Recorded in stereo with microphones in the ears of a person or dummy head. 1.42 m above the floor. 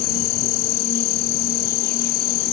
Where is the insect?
45° left (ahead or behind).